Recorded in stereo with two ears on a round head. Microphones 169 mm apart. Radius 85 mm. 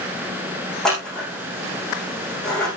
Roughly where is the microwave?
I don't hear a microwave.